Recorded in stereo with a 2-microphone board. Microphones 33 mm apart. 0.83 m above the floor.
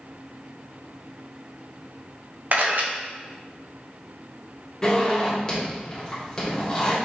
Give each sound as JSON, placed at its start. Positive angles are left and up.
{"t": 2.5, "sound": "a camera shutter", "side_deg": -55, "distance_m": 0.8}
{"t": 4.8, "sound": "a zipper", "side_deg": 25, "distance_m": 1.6}